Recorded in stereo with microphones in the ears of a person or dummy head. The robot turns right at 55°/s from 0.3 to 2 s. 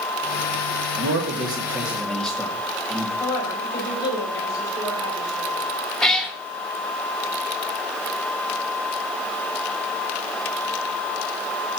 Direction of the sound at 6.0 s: Centre (ahead or behind).